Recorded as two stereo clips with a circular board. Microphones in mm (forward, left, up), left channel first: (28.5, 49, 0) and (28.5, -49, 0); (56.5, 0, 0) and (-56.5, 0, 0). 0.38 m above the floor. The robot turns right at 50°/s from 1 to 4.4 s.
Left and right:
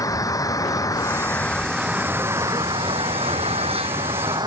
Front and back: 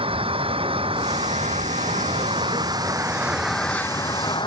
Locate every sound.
0.0 s an engine running: 145° left; by 4.5 s 45° right